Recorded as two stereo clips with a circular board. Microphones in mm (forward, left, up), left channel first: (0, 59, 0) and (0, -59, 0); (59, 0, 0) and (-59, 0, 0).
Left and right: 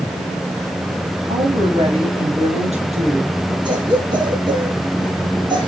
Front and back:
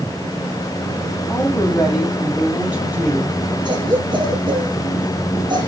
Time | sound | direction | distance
1.3 | a woman speaking | 80° right | 5.5 m
3.6 | a cough | 135° right | 3 m